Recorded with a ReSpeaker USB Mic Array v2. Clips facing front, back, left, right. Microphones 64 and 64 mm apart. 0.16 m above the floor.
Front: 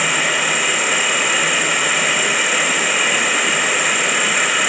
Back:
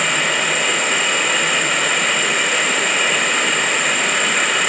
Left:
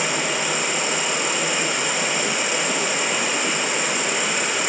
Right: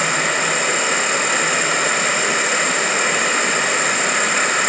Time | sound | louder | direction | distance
0.0 | an insect | even, right 5 dB | 85° right | 2.5 m